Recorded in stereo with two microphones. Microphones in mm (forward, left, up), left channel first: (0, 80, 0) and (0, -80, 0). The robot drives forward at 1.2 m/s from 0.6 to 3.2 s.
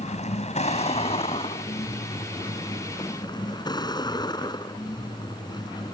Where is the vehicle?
45° left (ahead or behind); by 6.0 s 25° left (ahead or behind).